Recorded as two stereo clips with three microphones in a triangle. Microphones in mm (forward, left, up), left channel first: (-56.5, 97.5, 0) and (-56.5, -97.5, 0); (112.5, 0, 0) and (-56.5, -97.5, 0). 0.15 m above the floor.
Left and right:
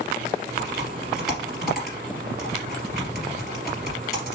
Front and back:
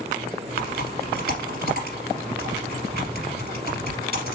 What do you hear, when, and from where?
0.6 s typing on a keyboard: straight behind, 2.5 m